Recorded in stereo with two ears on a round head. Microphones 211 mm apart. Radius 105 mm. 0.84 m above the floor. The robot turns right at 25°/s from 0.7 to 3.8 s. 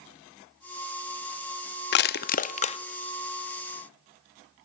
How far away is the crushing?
About 0.5 m.